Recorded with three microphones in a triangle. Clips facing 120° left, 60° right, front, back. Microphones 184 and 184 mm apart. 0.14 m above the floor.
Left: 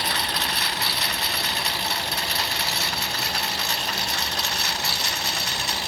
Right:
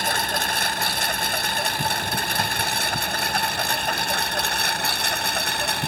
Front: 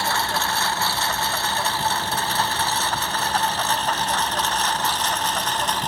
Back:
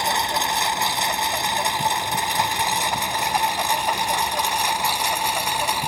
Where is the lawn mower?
105° right; by 5.9 s 100° right.